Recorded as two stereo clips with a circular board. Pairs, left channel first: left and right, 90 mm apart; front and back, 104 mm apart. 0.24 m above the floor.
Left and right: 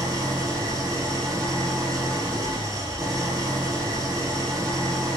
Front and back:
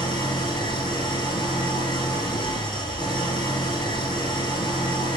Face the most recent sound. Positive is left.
turn(degrees=-45)